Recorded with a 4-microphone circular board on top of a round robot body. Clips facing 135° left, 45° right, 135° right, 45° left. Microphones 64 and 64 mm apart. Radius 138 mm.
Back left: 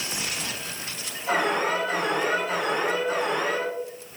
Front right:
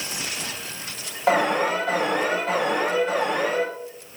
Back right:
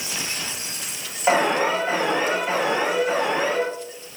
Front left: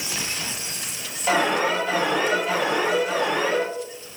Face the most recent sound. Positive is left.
turn(degrees=-65)